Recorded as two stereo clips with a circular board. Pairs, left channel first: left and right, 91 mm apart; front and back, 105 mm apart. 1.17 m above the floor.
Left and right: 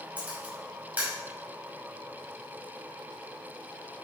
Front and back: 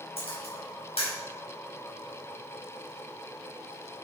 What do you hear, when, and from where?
0.2 s a camera shutter: 15° right, 5 m